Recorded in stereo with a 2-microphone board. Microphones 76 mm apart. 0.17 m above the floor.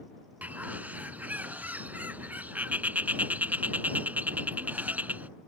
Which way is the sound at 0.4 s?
20° right (ahead or behind).